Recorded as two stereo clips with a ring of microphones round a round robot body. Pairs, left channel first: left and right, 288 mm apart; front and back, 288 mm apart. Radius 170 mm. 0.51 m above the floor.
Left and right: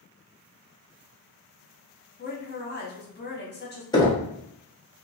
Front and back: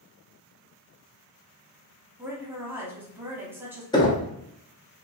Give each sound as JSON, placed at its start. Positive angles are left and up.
{"t": 2.2, "sound": "a woman speaking", "azimuth_deg": 105, "distance_m": 1.1}
{"t": 3.9, "sound": "knocking", "azimuth_deg": 45, "distance_m": 0.8}